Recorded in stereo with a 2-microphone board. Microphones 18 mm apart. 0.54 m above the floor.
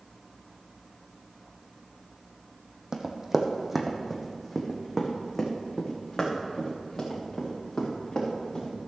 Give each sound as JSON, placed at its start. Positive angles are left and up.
{"t": 2.9, "sound": "running footsteps", "side_deg": -35, "distance_m": 1.3}